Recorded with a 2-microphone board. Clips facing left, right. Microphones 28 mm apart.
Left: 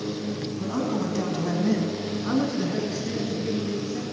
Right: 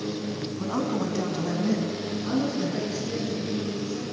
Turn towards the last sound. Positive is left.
turn(degrees=65)  # may be behind; listen again after turning